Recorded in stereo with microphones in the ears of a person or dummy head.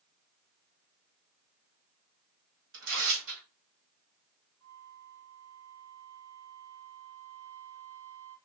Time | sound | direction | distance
2.7 | tearing paper | 80° right | 1.7 m
4.6 | a flute | 35° right (ahead or behind) | 3 m